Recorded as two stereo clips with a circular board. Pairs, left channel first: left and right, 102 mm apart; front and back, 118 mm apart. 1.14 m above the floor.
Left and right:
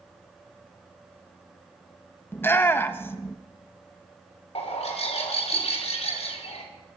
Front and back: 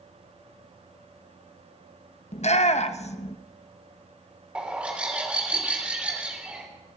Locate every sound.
2.3 s a shout: 20° left, 0.8 m
4.5 s a bird: 100° left, 3 m